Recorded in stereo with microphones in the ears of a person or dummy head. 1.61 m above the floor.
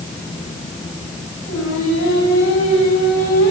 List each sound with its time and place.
1.5 s singing: 55° left (ahead or behind), 8 m